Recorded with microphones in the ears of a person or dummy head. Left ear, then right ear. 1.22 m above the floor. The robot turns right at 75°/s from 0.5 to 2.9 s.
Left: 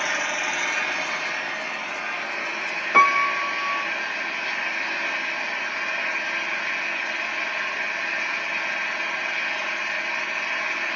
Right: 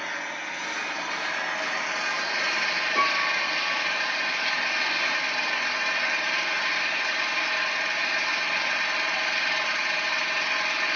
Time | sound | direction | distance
0.0 | an engine running | 140° left | 1.0 m
2.9 | a piano | 70° left (ahead or behind) | 0.6 m